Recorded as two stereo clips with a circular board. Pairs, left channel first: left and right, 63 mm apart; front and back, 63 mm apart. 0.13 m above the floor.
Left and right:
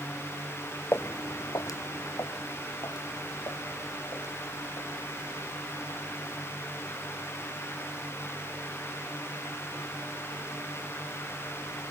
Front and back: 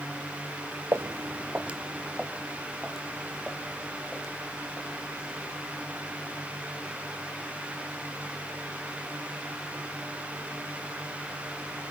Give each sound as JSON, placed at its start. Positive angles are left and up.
{"t": 0.9, "sound": "footsteps", "azimuth_deg": 140, "distance_m": 0.5}